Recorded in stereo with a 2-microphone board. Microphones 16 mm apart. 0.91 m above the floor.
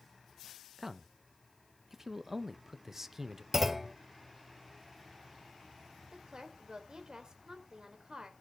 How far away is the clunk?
About 0.7 m.